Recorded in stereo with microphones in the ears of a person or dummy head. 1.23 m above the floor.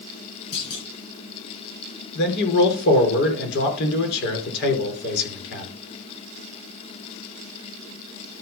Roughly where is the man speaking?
Left.